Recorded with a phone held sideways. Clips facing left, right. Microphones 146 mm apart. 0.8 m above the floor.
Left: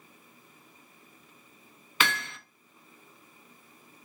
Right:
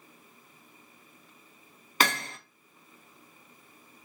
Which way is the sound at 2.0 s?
40° right (ahead or behind).